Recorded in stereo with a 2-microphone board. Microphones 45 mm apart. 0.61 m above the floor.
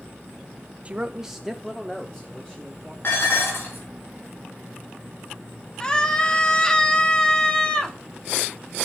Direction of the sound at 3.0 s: 60° left (ahead or behind).